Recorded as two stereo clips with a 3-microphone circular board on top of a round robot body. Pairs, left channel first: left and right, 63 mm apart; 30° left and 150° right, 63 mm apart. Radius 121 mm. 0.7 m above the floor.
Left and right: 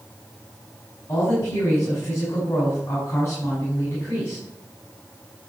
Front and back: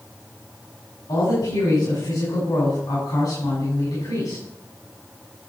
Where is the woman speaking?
35° left, 6 m.